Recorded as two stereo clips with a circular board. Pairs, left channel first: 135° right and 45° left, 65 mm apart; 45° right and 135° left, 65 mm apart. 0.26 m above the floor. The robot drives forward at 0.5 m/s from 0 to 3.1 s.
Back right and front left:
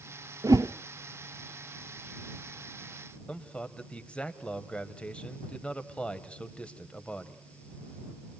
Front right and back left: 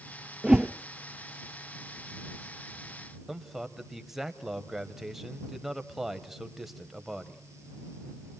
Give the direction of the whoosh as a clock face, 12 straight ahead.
10 o'clock.